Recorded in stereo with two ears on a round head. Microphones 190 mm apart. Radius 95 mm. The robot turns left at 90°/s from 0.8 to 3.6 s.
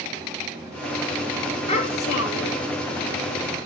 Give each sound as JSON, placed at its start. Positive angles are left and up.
{"t": 1.7, "sound": "a child speaking", "azimuth_deg": 150, "distance_m": 1.6}